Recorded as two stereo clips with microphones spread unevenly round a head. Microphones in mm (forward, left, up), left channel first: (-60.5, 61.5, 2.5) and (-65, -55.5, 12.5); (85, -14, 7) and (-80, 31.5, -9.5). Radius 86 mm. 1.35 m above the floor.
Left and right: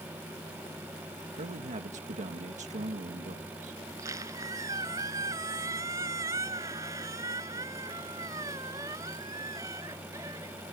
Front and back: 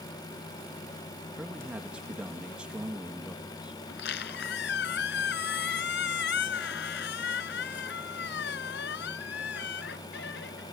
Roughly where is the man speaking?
Right.